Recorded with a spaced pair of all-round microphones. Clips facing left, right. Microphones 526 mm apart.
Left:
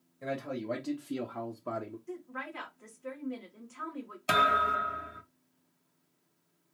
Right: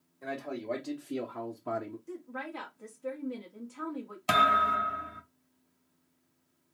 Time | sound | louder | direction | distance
0.2 | a man speaking | left 1 dB | 45° left (ahead or behind) | 0.9 m
2.1 | a woman speaking | right 1 dB | 60° right (ahead or behind) | 1.3 m
4.3 | a thud | even | 20° right (ahead or behind) | 0.7 m